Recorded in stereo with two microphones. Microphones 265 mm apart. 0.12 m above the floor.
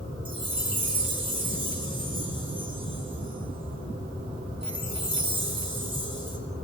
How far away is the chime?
About 6 m.